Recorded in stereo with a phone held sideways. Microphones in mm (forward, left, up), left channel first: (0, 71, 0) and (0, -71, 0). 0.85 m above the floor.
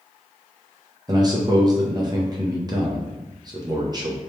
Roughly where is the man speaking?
Right.